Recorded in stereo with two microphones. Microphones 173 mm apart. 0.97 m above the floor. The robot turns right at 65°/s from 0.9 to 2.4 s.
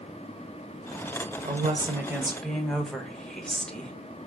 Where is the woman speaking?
55° right, 0.7 m; by 3.9 s 5° left, 0.7 m.